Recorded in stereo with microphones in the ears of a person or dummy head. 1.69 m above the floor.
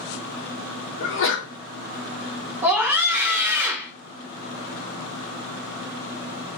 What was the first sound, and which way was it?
A sneeze, 65° left (ahead or behind).